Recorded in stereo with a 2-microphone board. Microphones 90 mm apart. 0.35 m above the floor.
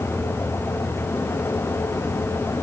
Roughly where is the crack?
No crack in this recording.